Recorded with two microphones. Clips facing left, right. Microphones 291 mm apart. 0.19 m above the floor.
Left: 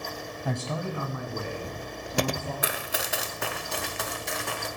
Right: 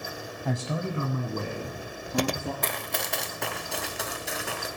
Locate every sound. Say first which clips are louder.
0.5 s a man speaking: right 1 dB; centre (ahead or behind), 1.0 m; by 2.5 s 60° right (ahead or behind), 3 m
2.6 s running footsteps: even; 10° left (ahead or behind), 0.7 m; by 4.7 s 5° right (ahead or behind), 1.9 m